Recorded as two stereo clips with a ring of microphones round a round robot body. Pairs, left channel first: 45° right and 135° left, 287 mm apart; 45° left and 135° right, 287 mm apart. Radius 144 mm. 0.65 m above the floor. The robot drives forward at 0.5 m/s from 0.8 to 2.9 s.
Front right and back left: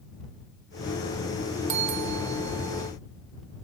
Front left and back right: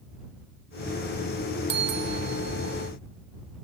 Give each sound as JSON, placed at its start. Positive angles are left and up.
{"t": 1.7, "sound": "a bell", "azimuth_deg": 170}